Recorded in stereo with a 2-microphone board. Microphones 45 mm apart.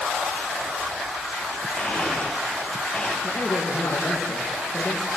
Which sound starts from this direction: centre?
A blender, at 1.8 s.